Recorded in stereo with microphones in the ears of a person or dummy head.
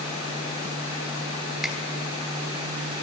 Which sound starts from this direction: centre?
A finger snap, at 1.6 s.